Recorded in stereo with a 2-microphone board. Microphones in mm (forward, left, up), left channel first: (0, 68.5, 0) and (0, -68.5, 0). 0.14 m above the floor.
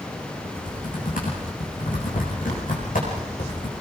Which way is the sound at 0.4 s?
80° left.